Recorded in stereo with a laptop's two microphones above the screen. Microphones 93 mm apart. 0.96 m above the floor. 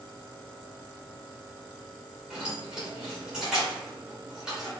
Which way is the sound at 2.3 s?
5° right (ahead or behind).